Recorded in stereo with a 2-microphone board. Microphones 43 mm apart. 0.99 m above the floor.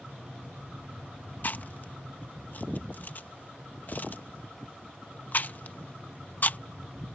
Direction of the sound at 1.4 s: 40° left (ahead or behind).